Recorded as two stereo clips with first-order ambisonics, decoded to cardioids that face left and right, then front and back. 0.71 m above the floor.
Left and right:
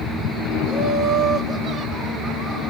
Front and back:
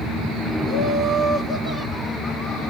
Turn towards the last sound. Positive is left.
turn(degrees=45)